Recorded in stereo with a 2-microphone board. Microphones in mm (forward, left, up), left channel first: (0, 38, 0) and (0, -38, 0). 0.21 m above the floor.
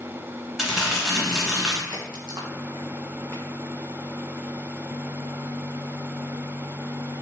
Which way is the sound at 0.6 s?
5° right (ahead or behind).